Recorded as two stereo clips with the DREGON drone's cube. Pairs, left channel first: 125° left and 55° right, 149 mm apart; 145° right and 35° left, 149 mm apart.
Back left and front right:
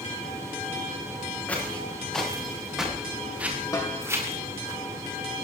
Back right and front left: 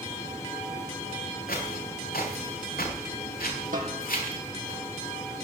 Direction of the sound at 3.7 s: 55° left.